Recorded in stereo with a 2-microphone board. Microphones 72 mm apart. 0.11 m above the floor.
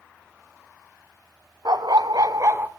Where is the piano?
No piano in this recording.